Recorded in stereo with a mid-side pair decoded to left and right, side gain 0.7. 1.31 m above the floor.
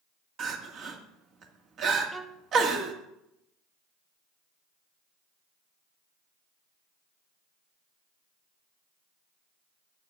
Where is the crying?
45° right, 1.7 m.